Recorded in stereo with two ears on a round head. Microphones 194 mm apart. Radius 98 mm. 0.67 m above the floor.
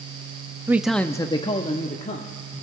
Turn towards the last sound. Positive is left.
turn(degrees=30)  # may be behind; listen again after turning